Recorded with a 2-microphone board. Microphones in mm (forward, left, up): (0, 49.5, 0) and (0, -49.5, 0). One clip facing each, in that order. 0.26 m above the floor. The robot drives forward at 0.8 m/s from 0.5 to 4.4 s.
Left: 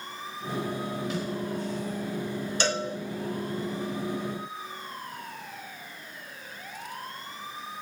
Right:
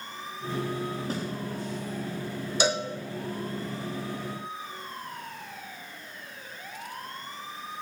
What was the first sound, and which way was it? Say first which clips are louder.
A snare drum: left 1 dB; 40° right (ahead or behind).